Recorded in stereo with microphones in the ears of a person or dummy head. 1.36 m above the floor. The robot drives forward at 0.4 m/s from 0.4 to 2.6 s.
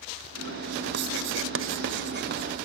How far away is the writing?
About 0.6 m.